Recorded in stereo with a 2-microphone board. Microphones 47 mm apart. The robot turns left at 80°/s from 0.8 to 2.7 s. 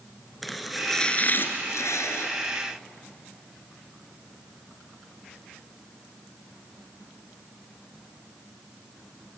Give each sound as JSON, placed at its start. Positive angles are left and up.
{"t": 0.4, "sound": "chopping", "azimuth_deg": 180, "distance_m": 2.0}